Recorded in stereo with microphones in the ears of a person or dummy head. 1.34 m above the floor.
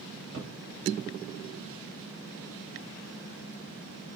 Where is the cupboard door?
75° right (ahead or behind), 3.5 m.